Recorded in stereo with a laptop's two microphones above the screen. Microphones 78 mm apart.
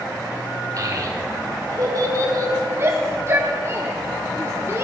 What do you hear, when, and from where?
0.8 s a child speaking: 50° right (ahead or behind), 1.6 m
2.8 s a shout: 35° right (ahead or behind), 0.7 m